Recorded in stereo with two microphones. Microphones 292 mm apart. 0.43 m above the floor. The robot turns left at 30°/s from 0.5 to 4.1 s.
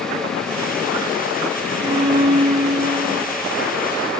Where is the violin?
75° right, 4 m; by 3.4 s 120° right, 4 m.